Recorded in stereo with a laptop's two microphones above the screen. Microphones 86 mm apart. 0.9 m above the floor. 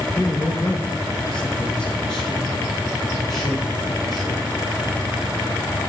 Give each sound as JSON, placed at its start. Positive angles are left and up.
{"t": 0.2, "sound": "a man speaking", "side_deg": 20, "distance_m": 0.8}